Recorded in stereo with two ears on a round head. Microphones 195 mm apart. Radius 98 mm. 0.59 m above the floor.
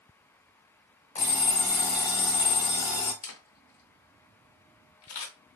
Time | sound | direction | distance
1.1 | an alarm clock | 30° left (ahead or behind) | 0.7 m
3.2 | a camera shutter | 80° left | 0.7 m